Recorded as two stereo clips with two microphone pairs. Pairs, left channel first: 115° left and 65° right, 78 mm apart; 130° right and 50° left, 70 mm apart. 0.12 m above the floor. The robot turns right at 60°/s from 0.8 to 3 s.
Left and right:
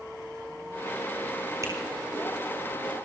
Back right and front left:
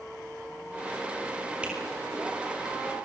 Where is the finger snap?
25° right, 5 m; by 1.7 s 15° right, 5 m.